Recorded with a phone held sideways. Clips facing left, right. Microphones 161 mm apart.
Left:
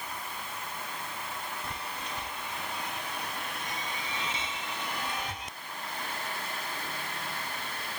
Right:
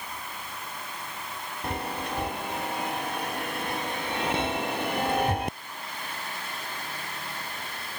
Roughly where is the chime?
Right.